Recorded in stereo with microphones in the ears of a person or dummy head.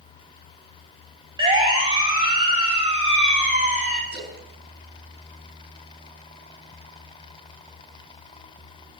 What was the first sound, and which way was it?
A siren, 30° right (ahead or behind).